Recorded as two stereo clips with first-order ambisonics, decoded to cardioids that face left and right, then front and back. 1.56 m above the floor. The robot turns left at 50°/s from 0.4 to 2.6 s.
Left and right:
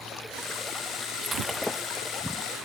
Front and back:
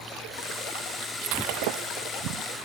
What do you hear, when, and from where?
1.2 s breaking glass: 160° right; by 2.1 s 150° left